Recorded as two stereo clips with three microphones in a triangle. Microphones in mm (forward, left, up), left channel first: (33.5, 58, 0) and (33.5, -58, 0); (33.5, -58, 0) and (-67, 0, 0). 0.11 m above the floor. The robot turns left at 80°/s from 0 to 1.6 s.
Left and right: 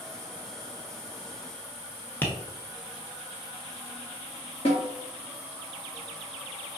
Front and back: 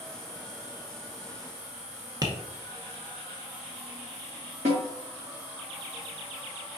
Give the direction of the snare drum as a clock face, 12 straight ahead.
8 o'clock.